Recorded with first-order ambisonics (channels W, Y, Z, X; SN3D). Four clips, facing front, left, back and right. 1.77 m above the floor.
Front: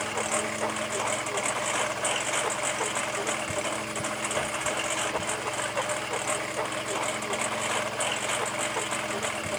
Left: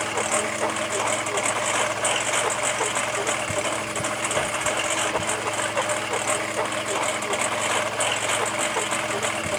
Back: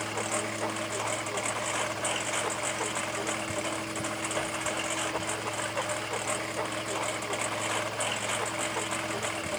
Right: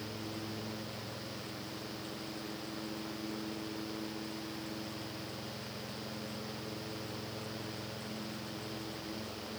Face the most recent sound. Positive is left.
turn(degrees=80)